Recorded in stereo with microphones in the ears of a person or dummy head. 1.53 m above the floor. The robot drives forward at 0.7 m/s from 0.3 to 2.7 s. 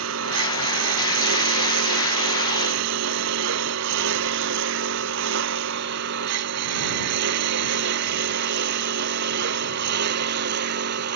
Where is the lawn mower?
75° right (ahead or behind); by 11.2 s 60° right (ahead or behind).